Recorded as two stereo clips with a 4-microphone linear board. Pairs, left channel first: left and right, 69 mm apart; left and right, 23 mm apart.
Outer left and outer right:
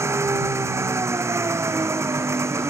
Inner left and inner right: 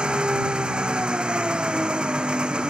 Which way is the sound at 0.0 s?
40° right (ahead or behind).